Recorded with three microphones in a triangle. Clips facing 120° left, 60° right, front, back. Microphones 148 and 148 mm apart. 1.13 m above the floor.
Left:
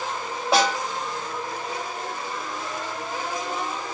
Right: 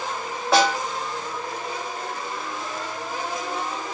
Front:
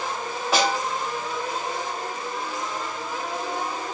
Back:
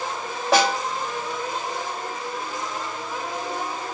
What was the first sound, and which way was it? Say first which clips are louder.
A snare drum: right 2 dB, back 3 dB; 170° right.